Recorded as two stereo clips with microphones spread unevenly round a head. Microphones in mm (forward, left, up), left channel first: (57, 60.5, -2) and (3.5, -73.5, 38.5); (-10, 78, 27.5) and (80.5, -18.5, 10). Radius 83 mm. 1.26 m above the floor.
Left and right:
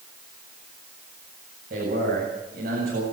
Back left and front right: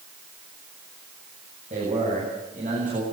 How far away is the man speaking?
About 9 m.